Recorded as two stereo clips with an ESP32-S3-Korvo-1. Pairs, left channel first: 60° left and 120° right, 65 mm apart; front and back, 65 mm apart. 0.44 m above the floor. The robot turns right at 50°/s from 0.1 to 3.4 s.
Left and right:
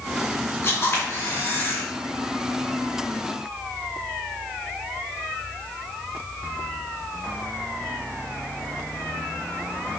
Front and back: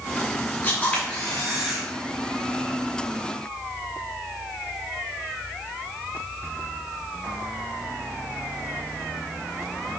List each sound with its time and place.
0.6 s a camera shutter: 45° left, 1.7 m; by 1.8 s 105° left, 1.7 m